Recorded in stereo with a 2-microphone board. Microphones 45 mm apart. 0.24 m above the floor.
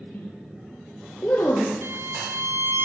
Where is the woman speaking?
40° left (ahead or behind), 5.5 m.